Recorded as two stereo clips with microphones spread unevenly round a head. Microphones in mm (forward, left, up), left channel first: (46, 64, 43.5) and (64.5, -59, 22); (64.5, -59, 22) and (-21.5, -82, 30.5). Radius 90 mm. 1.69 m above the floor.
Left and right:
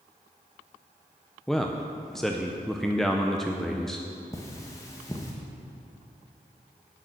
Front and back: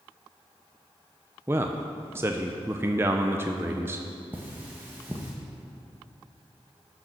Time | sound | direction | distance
1.5 | a man speaking | 165° left | 0.6 m
4.3 | cutlery clinking | 140° left | 1.0 m